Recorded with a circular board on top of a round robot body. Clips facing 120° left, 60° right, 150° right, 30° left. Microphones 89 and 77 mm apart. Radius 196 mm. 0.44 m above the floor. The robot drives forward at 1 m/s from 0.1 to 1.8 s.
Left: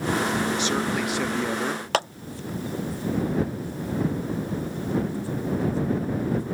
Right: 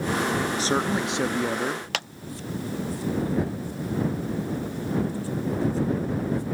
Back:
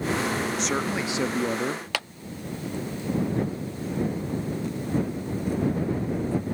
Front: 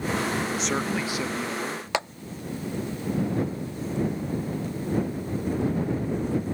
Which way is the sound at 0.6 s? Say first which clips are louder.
Right 1 dB, even; 55° right.